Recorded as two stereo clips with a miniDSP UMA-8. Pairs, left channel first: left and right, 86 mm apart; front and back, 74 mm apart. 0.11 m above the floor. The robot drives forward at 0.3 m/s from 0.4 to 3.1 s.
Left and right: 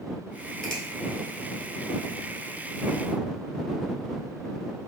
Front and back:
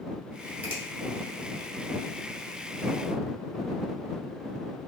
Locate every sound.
0.6 s a finger snap: 160° left, 1.0 m